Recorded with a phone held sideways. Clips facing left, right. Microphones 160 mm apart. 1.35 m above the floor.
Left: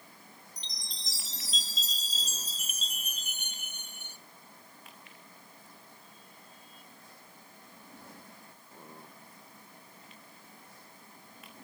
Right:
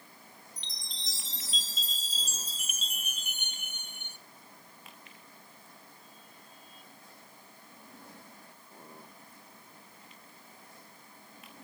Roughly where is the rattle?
I don't hear a rattle.